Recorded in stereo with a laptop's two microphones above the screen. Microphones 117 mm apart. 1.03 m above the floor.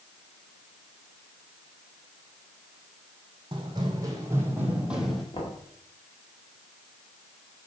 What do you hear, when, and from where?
3.5 s running footsteps: 40° right (ahead or behind), 2.5 m; by 5.2 s centre (ahead or behind), 2.0 m
5.3 s knocking: 50° left (ahead or behind), 1.9 m